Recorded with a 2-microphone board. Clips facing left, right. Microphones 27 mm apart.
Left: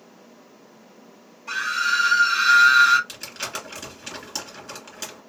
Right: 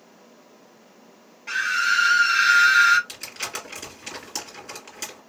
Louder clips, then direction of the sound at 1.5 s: Right 1 dB; 30° right (ahead or behind).